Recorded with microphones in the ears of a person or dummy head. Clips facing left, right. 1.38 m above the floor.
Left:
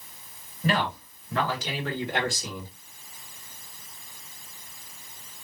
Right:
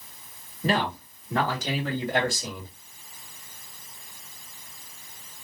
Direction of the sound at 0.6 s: 30° right (ahead or behind).